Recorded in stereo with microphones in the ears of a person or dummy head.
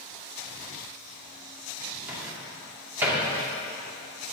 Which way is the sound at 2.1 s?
10° right (ahead or behind).